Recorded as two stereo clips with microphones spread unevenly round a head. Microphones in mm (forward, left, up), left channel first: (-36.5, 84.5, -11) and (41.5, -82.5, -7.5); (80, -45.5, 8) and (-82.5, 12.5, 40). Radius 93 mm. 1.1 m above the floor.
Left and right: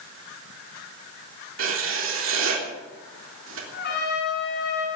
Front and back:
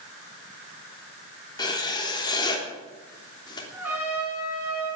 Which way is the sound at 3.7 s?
80° left.